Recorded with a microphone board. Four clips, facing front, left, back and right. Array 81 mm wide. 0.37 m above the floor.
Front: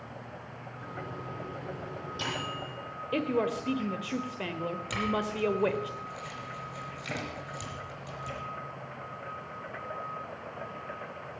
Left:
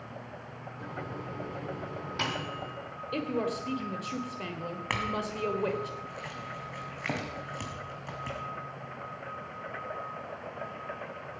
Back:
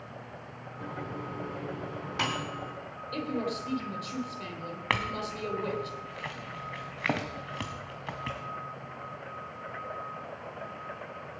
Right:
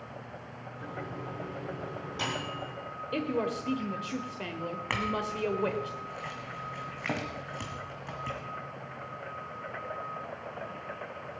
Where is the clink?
Straight behind, 1.6 m.